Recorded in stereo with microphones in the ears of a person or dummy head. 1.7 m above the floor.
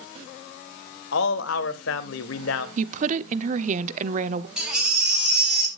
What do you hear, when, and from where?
1.1 s a man speaking: 75° left (ahead or behind), 1.6 m
2.8 s a woman speaking: 45° right (ahead or behind), 0.8 m
4.6 s a baby crying: 5° right (ahead or behind), 9.5 m